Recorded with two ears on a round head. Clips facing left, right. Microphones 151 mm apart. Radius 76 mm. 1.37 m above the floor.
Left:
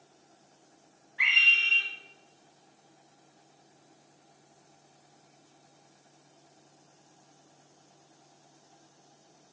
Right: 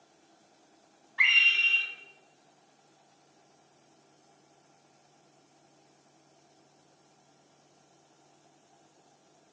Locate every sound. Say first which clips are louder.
1.2 s a scream: even; 80° right, 1.0 m